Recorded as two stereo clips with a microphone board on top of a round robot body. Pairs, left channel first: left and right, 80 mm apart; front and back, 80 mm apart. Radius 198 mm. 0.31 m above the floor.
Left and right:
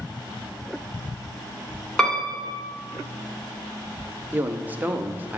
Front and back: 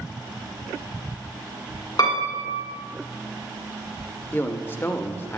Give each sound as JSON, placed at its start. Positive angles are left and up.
{"t": 2.0, "sound": "a piano", "azimuth_deg": 10, "distance_m": 2.0}
{"t": 4.3, "sound": "a man speaking", "azimuth_deg": -40, "distance_m": 1.0}